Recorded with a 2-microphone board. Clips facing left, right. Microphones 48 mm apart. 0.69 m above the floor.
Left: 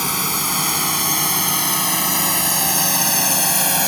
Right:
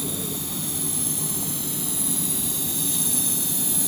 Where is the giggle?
No giggle in this recording.